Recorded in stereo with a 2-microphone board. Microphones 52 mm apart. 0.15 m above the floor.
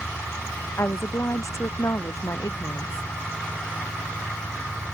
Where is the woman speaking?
60° left (ahead or behind); by 3.1 s 75° left (ahead or behind).